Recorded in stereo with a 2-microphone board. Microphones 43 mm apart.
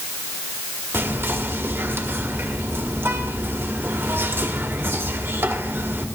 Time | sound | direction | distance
0.9 | whispering | 55° right (ahead or behind) | 1.3 m